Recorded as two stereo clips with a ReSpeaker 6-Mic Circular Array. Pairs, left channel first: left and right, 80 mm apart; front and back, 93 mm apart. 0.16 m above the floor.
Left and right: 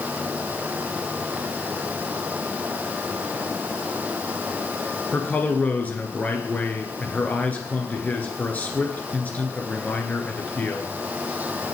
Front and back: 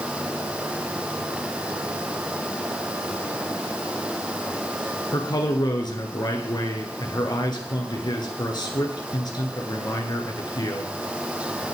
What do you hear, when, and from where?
5.1 s a man speaking: 25° left, 2.5 m